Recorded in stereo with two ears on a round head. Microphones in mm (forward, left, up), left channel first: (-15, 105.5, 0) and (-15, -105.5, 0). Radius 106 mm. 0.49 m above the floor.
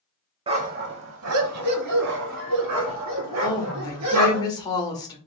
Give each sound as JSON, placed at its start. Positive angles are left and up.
{"t": 0.5, "sound": "a dog barking", "side_deg": -20, "distance_m": 0.5}
{"t": 3.4, "sound": "a woman speaking", "side_deg": 15, "distance_m": 1.2}